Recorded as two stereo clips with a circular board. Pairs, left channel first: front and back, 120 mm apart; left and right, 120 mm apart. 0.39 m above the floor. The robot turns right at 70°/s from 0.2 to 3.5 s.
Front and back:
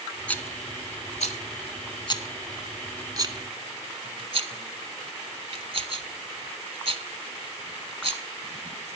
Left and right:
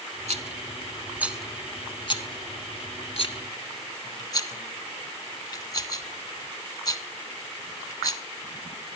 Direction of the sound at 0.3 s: 80° right.